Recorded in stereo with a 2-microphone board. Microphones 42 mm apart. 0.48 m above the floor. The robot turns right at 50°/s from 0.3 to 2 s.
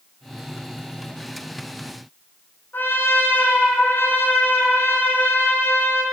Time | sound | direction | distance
2.7 | a trumpet | 60° left (ahead or behind) | 1.4 m